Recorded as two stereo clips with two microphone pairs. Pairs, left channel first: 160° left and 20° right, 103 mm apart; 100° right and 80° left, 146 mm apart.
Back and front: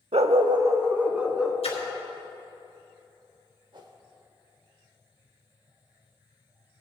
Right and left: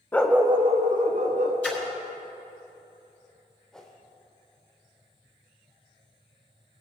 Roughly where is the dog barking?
Ahead right.